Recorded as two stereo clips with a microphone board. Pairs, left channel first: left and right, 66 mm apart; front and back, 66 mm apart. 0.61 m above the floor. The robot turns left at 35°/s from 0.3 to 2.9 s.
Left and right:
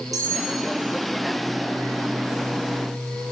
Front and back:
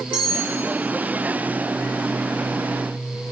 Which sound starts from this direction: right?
Cutlery clinking, at 0.1 s.